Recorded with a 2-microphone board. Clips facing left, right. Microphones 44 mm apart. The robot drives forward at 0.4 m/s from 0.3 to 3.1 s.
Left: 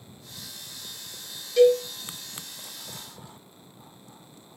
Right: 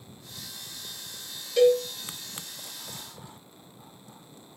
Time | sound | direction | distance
1.6 | a cowbell | 5° right (ahead or behind) | 1.5 m